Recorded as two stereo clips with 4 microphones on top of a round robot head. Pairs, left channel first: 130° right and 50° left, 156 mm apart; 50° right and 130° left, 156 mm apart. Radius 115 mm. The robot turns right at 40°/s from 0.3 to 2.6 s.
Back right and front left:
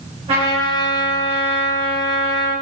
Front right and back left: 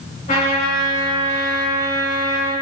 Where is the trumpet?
5° right, 3 m; by 2.5 s 85° left, 3 m.